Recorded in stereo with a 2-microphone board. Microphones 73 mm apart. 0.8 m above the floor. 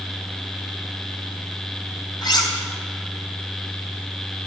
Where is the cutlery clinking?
85° left, 2 m.